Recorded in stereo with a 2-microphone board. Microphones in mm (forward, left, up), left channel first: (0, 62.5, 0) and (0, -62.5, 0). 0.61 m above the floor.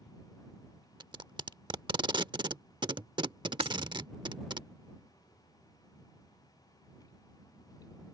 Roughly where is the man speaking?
No man speaking in this recording.